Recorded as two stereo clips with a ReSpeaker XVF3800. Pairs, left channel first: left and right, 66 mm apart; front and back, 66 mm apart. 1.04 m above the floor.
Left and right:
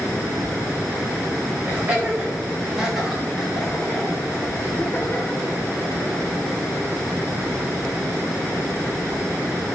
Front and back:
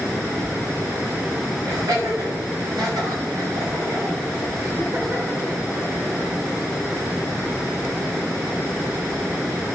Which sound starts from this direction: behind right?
Laughter, at 1.7 s.